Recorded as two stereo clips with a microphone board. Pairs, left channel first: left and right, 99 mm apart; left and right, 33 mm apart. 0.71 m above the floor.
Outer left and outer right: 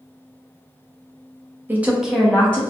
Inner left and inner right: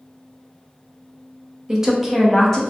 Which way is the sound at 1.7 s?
20° right (ahead or behind).